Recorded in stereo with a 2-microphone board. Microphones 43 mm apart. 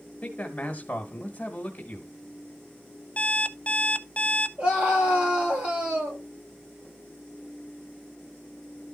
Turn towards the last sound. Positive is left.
turn(degrees=-30)  # may be behind; listen again after turning